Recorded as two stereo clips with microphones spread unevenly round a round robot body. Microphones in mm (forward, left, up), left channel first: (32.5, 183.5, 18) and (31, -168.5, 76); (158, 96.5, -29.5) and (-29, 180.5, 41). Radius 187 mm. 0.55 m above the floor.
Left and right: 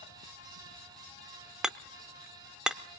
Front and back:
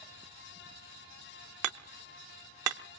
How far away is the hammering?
About 0.6 m.